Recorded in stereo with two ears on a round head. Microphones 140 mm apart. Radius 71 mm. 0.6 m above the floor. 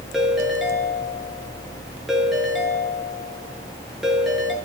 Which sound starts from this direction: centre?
A ringtone, at 0.1 s.